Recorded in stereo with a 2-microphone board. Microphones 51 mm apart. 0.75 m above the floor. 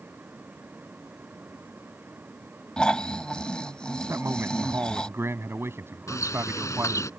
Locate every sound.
2.8 s snoring: 20° left (ahead or behind)
4.1 s a man speaking: 50° right (ahead or behind)
6.1 s a bird: 85° left